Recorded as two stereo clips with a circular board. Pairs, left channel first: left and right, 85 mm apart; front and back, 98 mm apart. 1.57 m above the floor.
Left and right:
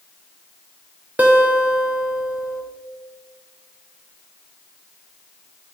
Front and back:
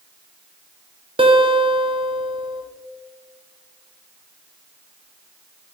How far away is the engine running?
I don't hear an engine running.